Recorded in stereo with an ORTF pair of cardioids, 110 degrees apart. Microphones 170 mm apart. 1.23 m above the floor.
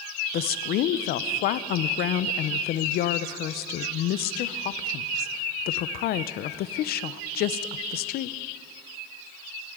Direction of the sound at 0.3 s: 70° left.